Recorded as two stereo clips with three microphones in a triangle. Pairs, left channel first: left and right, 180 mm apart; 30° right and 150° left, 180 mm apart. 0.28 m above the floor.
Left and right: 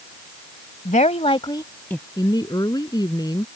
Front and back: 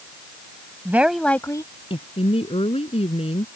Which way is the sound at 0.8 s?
80° left.